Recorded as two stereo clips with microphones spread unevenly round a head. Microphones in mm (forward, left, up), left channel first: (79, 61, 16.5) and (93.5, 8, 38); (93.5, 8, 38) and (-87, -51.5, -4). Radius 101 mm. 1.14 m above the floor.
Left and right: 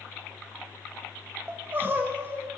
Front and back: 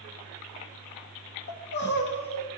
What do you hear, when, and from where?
1.5 s crying: 20° right, 1.1 m